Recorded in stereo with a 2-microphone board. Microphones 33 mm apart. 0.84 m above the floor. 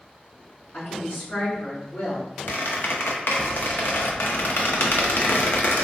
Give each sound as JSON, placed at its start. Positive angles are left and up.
{"t": 0.7, "sound": "a woman speaking", "side_deg": 70, "distance_m": 1.7}
{"t": 2.5, "sound": "a squeak", "side_deg": 85, "distance_m": 0.5}